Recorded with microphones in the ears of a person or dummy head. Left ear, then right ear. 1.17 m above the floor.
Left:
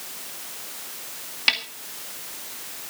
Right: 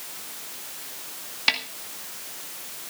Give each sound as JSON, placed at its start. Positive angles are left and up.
{"t": 1.5, "sound": "a snare drum", "side_deg": 0, "distance_m": 1.9}